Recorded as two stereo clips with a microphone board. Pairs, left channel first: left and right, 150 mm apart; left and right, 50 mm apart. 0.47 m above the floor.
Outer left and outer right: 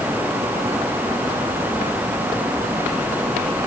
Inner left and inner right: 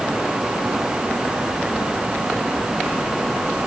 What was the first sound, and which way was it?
Only background noise.